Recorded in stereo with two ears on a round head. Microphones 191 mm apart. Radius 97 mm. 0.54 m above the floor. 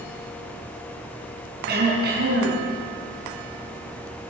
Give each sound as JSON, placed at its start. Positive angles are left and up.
{"t": 1.7, "sound": "throat clearing", "side_deg": -45, "distance_m": 5.5}